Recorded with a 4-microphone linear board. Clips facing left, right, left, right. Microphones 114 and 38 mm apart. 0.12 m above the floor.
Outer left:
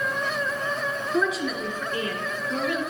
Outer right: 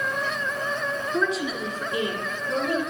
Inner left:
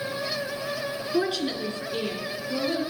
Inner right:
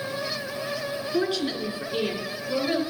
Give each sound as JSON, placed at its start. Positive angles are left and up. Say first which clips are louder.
{"t": 1.1, "sound": "a woman speaking", "louder": "outer left 1 dB, even", "side_deg": 5, "distance_m": 1.9}